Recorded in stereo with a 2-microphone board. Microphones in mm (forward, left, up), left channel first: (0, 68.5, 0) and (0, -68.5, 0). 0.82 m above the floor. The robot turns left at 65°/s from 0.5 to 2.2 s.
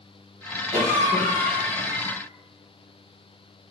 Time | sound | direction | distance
0.7 | a cough | 40° right | 0.9 m